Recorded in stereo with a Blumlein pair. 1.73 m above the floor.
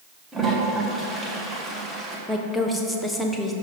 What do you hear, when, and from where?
0.3 s a toilet flushing: 15° right, 1.7 m
2.3 s a woman speaking: straight ahead, 1.3 m